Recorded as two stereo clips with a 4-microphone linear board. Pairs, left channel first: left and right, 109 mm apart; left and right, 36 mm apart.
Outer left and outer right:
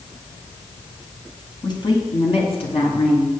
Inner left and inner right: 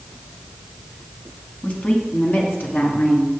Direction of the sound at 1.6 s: 40° left (ahead or behind).